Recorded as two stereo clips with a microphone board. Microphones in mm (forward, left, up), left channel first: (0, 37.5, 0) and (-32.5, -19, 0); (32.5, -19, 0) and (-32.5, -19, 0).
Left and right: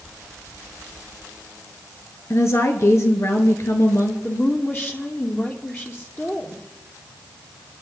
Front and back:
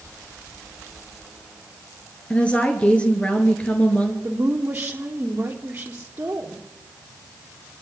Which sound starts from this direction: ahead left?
A woman speaking, at 2.3 s.